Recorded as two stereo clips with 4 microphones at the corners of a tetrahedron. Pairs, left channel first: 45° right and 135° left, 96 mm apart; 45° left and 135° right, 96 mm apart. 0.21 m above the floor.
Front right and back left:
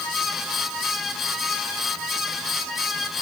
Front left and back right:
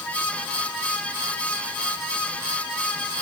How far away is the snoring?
I don't hear snoring.